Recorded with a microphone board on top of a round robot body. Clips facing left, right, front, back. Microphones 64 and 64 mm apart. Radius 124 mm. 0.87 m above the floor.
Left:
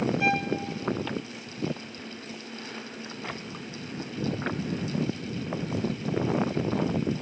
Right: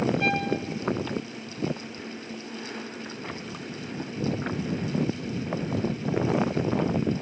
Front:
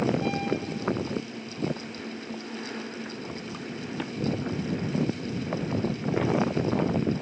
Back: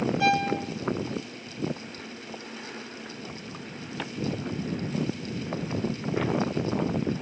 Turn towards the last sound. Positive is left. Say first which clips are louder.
# even, back 4 dB
turn(degrees=175)